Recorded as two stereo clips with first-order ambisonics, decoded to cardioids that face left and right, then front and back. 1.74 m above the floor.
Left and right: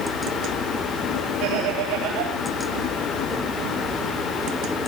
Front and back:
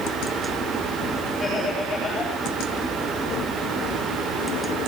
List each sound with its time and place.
1.4 s laughter: 75° right, 3.5 m